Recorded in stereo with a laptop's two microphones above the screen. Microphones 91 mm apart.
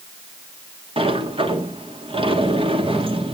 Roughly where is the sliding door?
Right.